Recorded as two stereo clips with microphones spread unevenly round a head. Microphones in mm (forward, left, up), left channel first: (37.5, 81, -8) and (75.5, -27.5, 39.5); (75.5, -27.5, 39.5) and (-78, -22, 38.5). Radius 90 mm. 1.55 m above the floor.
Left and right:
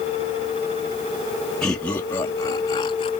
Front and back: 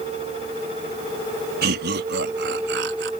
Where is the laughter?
165° right; by 3.1 s 175° left.